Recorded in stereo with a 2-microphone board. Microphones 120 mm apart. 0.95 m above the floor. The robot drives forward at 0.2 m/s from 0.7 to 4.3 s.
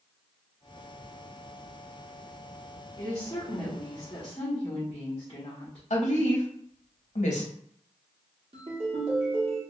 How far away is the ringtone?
About 1.3 m.